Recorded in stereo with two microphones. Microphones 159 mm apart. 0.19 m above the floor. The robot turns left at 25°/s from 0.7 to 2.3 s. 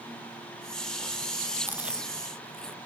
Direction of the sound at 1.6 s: 10° right (ahead or behind).